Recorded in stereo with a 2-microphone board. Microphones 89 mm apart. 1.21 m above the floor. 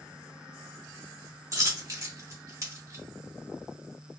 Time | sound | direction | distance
1.5 | a dropped coin | 40° right (ahead or behind) | 1.2 m